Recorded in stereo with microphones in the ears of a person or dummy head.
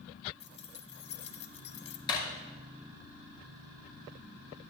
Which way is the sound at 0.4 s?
35° left (ahead or behind).